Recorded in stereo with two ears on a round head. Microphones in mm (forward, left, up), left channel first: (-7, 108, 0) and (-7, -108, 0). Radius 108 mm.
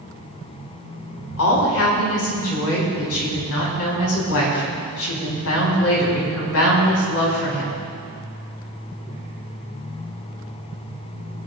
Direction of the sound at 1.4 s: 65° left (ahead or behind).